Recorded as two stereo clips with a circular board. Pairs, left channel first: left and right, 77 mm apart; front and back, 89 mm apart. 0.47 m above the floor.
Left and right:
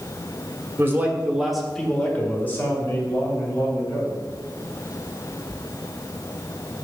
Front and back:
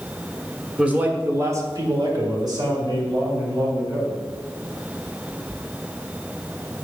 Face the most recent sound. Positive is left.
turn(degrees=140)